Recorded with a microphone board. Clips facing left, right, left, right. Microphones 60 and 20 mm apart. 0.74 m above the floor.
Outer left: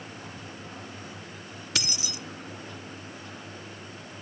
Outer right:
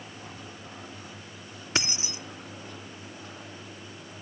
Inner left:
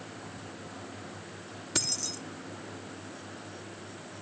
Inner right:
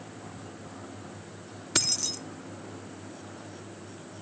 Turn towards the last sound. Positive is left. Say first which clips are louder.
# outer right 3 dB, inner right 4 dB
turn(degrees=-30)  # may be behind; listen again after turning